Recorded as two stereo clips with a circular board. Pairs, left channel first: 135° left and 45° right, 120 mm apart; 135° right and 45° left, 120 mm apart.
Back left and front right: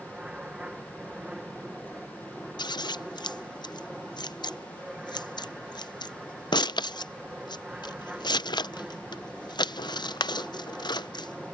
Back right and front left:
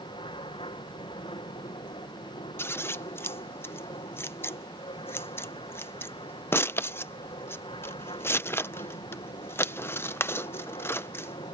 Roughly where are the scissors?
Behind.